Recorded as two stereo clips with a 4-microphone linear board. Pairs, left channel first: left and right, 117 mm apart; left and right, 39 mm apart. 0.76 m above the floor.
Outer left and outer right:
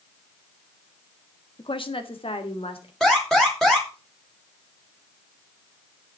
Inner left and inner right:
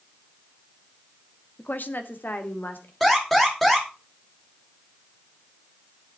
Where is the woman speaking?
50° left (ahead or behind), 1.4 m; by 2.9 s 60° left (ahead or behind), 3 m.